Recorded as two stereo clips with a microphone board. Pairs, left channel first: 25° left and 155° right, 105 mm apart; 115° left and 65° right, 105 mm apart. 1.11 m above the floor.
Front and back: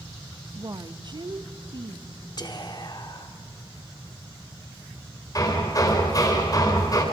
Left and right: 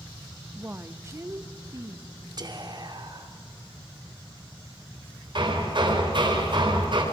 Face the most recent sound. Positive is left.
turn(degrees=-30)